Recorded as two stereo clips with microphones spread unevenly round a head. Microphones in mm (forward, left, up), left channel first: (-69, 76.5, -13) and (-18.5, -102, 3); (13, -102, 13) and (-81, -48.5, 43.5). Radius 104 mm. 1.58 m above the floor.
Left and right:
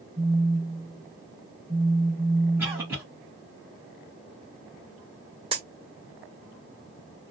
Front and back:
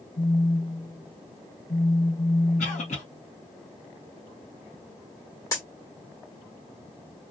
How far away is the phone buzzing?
About 1.0 m.